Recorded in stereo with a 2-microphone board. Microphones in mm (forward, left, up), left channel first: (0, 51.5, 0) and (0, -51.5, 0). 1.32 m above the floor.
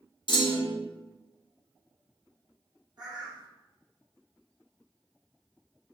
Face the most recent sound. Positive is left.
turn(degrees=-40)  # may be behind; listen again after turning